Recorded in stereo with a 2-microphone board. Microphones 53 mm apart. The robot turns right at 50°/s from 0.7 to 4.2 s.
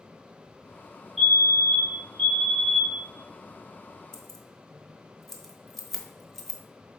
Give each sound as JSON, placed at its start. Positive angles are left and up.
{"t": 1.2, "sound": "a fire alarm", "side_deg": -5, "distance_m": 2.0}
{"t": 4.1, "sound": "keys jangling", "side_deg": 10, "distance_m": 1.0}